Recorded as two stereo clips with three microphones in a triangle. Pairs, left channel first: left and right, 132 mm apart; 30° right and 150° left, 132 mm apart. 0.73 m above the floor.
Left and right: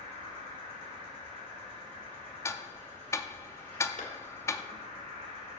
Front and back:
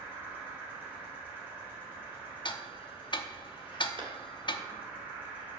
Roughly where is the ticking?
Ahead.